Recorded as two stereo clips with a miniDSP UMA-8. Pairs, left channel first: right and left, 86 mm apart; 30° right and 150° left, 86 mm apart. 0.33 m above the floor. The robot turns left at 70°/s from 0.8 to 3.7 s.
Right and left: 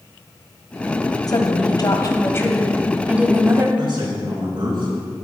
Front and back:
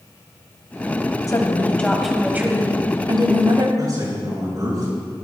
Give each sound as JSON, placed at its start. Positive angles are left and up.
{"t": 1.3, "sound": "a woman speaking", "azimuth_deg": -65, "distance_m": 1.6}
{"t": 3.8, "sound": "a man speaking", "azimuth_deg": 105, "distance_m": 5.0}